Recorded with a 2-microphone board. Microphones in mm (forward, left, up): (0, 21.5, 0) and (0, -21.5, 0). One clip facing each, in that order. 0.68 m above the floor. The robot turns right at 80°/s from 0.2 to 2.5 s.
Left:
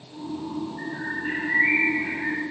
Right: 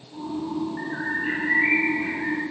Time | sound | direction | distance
0.8 | a bird | 110° right | 6.5 m